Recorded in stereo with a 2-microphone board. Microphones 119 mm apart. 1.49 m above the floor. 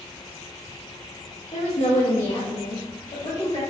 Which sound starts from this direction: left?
A woman speaking, at 1.5 s.